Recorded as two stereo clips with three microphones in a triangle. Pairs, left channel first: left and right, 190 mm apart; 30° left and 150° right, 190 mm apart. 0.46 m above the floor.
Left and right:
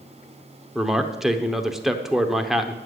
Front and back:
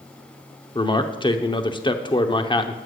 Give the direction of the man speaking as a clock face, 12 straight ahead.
12 o'clock.